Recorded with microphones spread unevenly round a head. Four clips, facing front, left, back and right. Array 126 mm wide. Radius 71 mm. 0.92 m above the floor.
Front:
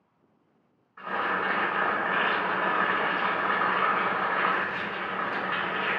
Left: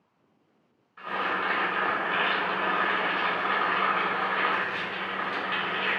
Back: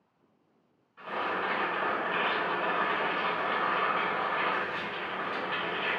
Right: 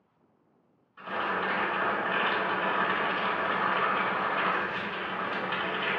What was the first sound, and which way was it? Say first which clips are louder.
Boiling: left 1 dB, front 3 dB; 20° left.